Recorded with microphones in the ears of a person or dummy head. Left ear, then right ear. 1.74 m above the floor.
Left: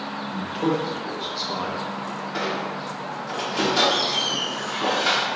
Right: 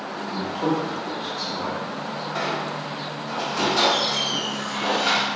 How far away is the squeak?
About 1.1 m.